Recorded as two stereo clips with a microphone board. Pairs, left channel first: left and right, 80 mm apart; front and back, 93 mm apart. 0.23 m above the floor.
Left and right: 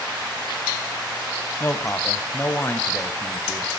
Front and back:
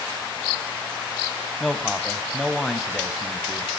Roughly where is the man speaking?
Left.